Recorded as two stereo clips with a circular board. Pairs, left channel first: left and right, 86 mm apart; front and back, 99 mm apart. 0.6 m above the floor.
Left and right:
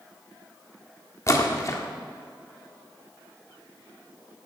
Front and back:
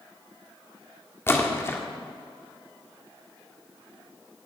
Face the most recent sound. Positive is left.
turn(degrees=55)